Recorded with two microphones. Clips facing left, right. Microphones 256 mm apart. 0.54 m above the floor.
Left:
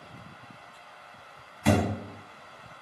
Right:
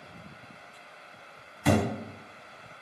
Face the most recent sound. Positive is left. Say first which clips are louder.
# even
turn(degrees=-5)  # may be behind; listen again after turning